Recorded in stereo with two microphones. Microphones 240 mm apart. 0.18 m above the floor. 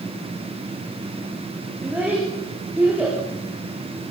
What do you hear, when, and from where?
1.8 s a child speaking: 10° right (ahead or behind), 9 m